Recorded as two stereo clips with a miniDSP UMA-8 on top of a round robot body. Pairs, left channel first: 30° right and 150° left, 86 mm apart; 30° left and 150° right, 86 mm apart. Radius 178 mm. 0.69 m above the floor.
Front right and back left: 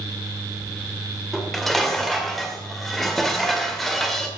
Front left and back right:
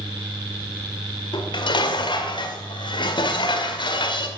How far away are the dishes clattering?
About 2 m.